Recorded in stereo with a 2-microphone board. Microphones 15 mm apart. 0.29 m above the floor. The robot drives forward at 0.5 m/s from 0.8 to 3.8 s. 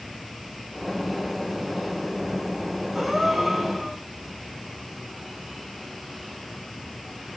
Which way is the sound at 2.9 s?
Centre (ahead or behind).